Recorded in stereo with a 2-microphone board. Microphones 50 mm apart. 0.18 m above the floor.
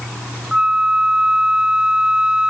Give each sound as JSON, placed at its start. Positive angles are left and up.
{"t": 0.5, "sound": "a flute", "side_deg": -20, "distance_m": 0.6}